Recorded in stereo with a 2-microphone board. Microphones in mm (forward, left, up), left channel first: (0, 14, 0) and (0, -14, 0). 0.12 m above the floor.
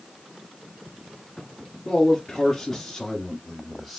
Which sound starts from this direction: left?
A man speaking, at 1.9 s.